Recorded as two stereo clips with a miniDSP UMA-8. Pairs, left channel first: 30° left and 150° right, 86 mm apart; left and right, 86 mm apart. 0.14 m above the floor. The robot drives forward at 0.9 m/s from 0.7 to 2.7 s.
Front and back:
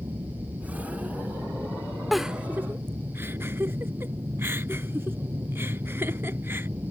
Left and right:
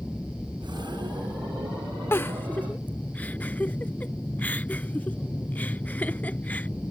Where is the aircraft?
165° left; by 6.9 s 155° left.